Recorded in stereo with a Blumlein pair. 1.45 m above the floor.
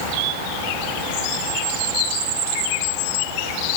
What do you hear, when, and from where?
Only background noise.